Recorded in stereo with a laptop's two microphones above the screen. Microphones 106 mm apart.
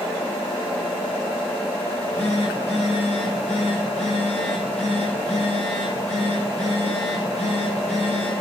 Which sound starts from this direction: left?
A phone buzzing, at 1.9 s.